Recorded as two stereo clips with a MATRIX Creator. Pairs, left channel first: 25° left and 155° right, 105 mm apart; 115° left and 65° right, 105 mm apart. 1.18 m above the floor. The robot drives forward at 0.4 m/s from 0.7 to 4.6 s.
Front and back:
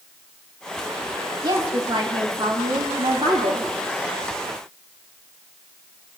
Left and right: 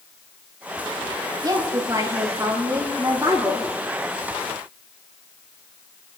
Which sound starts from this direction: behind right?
A woman speaking, at 1.4 s.